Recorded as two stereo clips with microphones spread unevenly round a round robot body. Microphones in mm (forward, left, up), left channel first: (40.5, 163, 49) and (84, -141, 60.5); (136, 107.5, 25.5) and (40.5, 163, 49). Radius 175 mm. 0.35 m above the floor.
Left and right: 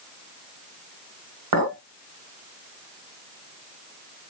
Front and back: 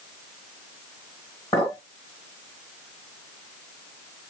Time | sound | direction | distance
1.5 | a clink | 90° right | 1.1 m